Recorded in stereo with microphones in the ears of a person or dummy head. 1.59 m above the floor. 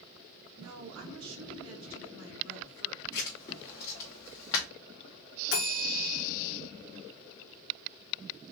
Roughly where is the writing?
Left.